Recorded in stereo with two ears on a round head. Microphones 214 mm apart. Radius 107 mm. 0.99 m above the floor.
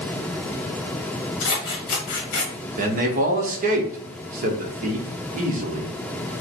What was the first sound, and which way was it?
Scissors, 55° left (ahead or behind).